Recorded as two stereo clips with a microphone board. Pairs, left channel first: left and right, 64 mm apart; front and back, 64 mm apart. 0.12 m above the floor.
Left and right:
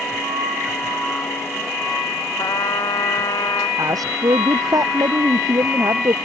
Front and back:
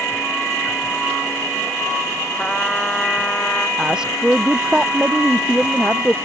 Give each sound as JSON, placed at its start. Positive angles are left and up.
{"t": 2.4, "sound": "a trumpet", "azimuth_deg": 75}
{"t": 3.8, "sound": "a woman speaking", "azimuth_deg": -100}